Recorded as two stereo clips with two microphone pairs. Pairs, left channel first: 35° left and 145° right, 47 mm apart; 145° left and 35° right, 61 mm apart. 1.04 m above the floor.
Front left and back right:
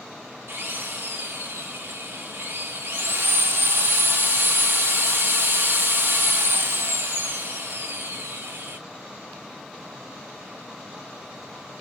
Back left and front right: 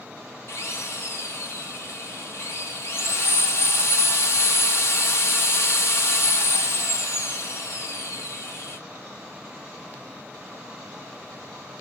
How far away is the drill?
About 3 m.